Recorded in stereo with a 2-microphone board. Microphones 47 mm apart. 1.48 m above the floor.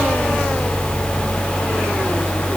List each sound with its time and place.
Only background noise.